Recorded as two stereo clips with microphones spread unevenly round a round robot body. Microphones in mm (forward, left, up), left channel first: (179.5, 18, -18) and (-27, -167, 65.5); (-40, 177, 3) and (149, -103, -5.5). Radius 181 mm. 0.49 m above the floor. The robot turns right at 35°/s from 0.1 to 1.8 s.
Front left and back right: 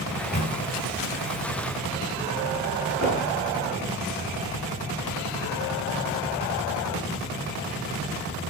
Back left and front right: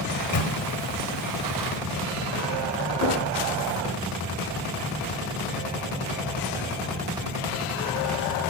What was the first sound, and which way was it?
A microwave, 95° left.